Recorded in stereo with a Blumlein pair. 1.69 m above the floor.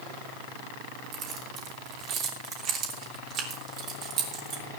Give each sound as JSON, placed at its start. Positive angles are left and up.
{"t": 1.1, "sound": "keys jangling", "azimuth_deg": -30, "distance_m": 3.0}